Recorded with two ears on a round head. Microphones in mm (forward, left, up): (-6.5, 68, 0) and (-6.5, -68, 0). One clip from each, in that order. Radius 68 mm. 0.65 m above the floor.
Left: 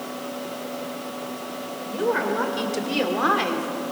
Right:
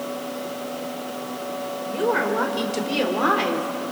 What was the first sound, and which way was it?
A woman speaking, 10° right (ahead or behind).